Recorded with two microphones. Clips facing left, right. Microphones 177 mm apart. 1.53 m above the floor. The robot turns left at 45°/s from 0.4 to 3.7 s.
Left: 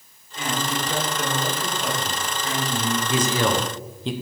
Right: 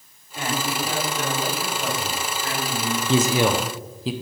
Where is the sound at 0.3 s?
115° right, 4 m; by 3.0 s 130° left, 4 m.